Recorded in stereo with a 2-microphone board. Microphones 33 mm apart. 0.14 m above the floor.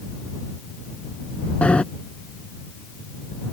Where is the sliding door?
35° left (ahead or behind).